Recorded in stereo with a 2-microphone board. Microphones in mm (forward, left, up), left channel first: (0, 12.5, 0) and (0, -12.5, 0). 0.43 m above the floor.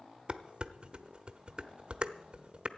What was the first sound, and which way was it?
Dishes clattering, 45° right (ahead or behind).